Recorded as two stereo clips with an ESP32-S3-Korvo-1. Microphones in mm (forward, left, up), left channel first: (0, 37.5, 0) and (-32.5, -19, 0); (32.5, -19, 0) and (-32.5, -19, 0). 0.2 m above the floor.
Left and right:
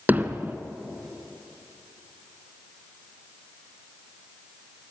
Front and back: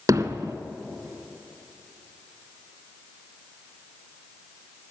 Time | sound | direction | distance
0.1 | hammering | straight behind | 1.4 m